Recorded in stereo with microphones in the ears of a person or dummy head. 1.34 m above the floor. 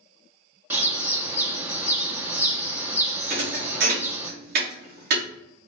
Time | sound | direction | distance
0.7 | a bird | 10° right (ahead or behind) | 1.2 m
3.3 | a thud | 50° right (ahead or behind) | 1.3 m